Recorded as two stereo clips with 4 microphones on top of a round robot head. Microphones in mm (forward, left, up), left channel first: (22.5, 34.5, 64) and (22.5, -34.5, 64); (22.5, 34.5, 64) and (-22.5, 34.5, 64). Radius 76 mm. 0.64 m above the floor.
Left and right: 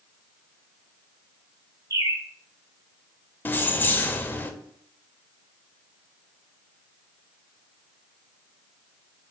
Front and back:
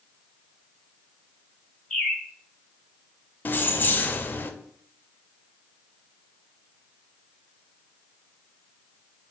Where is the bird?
75° right, 0.6 m.